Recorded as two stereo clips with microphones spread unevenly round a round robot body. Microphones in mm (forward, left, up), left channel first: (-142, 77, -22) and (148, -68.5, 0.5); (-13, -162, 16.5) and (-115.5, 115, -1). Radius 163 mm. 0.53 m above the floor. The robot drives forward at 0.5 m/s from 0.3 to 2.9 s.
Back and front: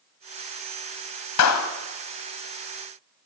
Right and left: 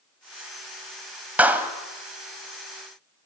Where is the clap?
165° right, 2.5 m.